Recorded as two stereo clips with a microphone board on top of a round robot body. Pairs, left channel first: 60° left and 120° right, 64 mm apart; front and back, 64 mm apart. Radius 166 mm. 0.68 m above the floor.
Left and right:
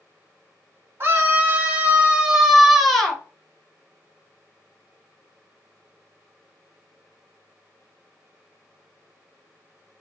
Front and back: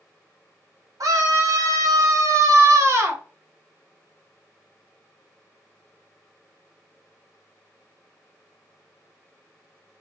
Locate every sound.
1.0 s a scream: 170° right, 1.7 m; by 3.2 s 135° left, 1.4 m